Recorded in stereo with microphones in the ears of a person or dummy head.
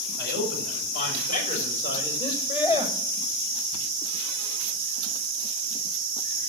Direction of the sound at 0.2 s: 60° left (ahead or behind).